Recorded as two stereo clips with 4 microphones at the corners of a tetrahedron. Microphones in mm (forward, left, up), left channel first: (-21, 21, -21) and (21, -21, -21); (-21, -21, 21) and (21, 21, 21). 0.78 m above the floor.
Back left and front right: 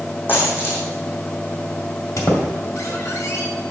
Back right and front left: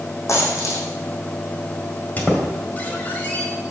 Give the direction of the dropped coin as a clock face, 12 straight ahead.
6 o'clock.